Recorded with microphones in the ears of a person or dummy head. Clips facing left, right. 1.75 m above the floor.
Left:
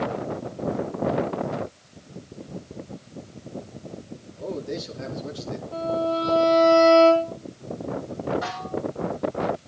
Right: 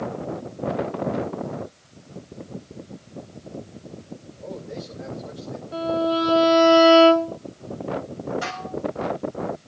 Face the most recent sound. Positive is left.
turn(degrees=-40)  # may be behind; listen again after turning